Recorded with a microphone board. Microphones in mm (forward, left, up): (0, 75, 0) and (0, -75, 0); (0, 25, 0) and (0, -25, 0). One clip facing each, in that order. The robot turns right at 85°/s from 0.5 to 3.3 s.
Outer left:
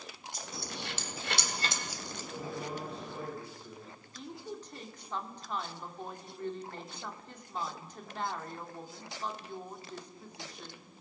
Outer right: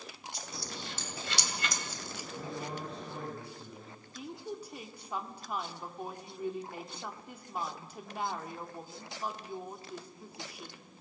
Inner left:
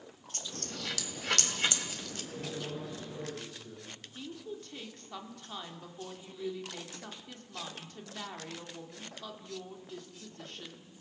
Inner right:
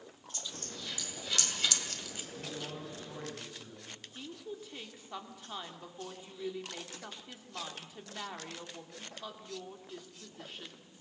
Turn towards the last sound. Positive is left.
turn(degrees=-10)  # may be behind; listen again after turning